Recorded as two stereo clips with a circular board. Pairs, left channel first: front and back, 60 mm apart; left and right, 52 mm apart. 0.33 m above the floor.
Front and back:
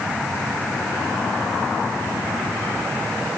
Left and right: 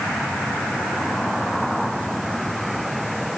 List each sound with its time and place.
Only background noise.